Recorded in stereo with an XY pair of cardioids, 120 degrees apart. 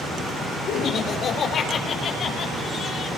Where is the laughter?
60° left, 4.5 m; by 3.1 s 50° left, 7.5 m.